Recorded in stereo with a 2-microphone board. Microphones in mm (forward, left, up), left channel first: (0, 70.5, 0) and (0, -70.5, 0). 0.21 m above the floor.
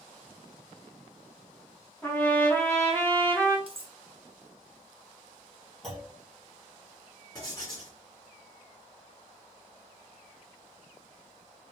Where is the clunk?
Centre (ahead or behind), 3.5 m.